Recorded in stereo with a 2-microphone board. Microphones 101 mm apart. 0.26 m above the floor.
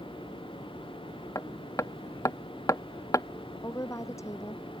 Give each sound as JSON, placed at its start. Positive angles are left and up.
{"t": 1.4, "sound": "hammering", "side_deg": 30}
{"t": 3.6, "sound": "a woman speaking", "side_deg": 30}